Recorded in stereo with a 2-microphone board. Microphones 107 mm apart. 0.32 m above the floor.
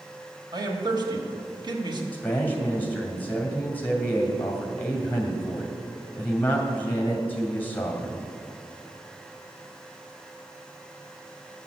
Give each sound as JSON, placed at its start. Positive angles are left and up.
{"t": 0.5, "sound": "a man speaking", "side_deg": -40, "distance_m": 1.4}
{"t": 2.1, "sound": "a man speaking", "side_deg": 15, "distance_m": 1.9}